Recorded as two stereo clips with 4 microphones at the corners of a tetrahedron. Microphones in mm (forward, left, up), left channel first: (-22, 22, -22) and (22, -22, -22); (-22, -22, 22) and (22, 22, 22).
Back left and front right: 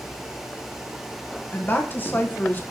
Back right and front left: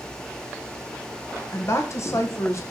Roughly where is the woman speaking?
Behind.